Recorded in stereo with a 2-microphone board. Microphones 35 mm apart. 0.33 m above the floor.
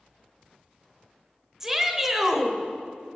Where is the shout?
15° right (ahead or behind), 0.9 m.